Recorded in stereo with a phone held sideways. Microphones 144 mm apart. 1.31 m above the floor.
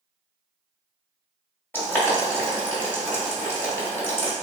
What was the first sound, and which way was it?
Boiling, 15° left (ahead or behind).